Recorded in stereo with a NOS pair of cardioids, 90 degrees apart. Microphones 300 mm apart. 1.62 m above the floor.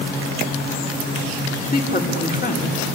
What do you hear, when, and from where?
1.6 s a woman speaking: 30° left, 4.5 m